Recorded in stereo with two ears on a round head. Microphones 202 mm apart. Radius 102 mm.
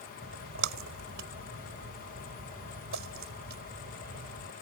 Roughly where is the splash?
Right.